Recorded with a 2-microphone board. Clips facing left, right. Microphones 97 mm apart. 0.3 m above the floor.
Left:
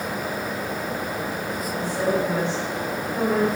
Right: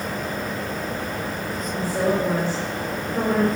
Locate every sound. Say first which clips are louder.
1.7 s a woman speaking: right 1 dB; 50° right (ahead or behind), 4 m